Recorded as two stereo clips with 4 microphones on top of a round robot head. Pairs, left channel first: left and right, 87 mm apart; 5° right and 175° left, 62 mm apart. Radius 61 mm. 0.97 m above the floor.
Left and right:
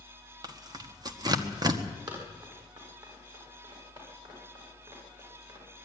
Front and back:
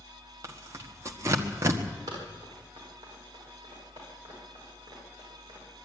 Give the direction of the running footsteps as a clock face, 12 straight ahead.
4 o'clock.